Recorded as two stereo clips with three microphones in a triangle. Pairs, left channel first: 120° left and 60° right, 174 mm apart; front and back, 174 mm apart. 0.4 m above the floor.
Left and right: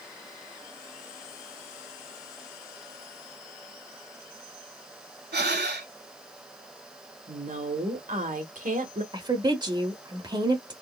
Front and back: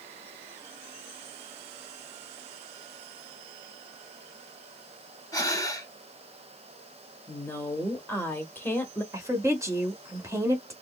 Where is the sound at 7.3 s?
75° right, 1.2 m.